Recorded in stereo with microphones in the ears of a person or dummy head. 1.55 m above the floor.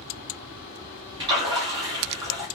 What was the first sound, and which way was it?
A splash, 20° right (ahead or behind).